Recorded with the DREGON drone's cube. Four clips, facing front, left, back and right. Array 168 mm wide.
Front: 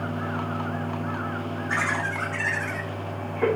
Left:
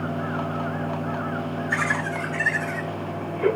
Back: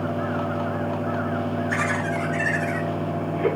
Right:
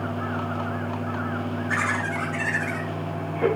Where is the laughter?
40° right, 8 m; by 3.5 s 35° right, 9 m.